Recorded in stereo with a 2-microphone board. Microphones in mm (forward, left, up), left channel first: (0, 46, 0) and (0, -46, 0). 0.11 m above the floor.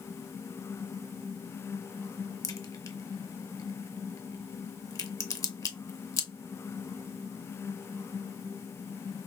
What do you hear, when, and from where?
2.4 s a crack: 40° left (ahead or behind), 0.6 m